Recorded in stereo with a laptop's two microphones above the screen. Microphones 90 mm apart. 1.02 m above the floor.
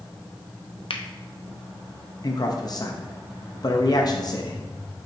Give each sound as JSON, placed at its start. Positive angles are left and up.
{"t": 0.9, "sound": "a finger snap", "side_deg": 70, "distance_m": 0.8}
{"t": 2.2, "sound": "a man speaking", "side_deg": 45, "distance_m": 0.7}